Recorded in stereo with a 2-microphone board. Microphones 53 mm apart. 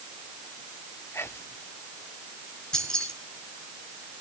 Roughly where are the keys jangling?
Centre.